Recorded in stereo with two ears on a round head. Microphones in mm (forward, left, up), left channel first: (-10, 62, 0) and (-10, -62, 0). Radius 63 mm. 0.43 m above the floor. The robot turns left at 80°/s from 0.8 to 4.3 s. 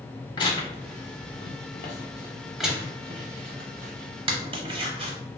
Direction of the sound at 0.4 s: 40° left (ahead or behind).